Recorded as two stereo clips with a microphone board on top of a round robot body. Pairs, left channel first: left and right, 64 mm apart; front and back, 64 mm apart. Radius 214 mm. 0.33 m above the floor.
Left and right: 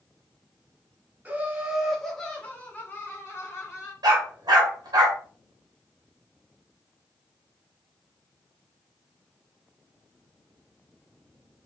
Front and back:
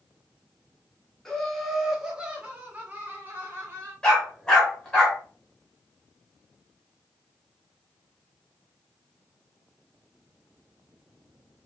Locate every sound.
1.2 s laughter: 75° right, 1.3 m; by 3.9 s 125° left, 2.0 m
4.0 s a dog barking: 75° right, 1.7 m